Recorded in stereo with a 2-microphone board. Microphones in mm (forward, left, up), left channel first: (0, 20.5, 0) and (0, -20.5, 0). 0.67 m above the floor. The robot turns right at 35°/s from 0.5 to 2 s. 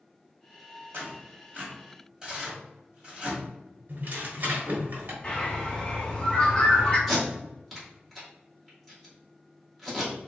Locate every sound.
0.9 s tearing paper: 55° right (ahead or behind), 1.5 m; by 3.4 s 20° right (ahead or behind), 1.5 m
3.9 s tearing paper: 50° right (ahead or behind), 1.1 m
5.2 s a bird: 25° left (ahead or behind), 0.9 m
7.1 s tape being pulled: 5° right (ahead or behind), 1.6 m